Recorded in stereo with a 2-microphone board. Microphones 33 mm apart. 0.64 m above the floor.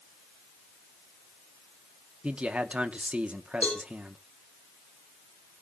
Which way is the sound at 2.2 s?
40° right (ahead or behind).